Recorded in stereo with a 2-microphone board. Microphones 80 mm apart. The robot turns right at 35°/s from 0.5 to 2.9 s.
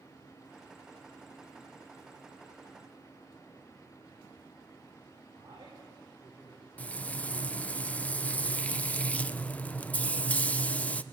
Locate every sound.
5.3 s a man speaking: 70° right (ahead or behind), 5.5 m
6.8 s frying: 20° left (ahead or behind), 0.5 m